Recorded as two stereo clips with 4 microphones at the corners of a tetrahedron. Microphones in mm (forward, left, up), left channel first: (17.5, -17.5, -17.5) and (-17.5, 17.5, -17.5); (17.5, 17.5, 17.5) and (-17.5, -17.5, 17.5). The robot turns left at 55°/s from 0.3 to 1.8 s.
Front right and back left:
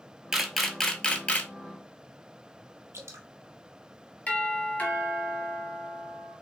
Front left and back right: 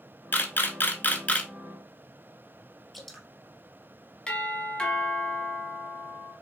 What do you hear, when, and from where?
0.3 s a camera shutter: 60° left, 0.6 m; by 1.5 s 5° right, 0.6 m
2.9 s dripping: 130° left, 0.8 m
4.3 s a doorbell: 10° right, 1.7 m